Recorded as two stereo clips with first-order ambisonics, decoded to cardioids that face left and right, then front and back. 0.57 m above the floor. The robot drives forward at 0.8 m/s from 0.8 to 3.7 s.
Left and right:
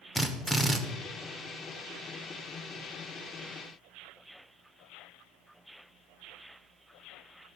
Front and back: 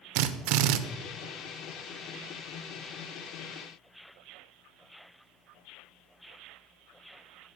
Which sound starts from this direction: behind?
A drill, at 0.1 s.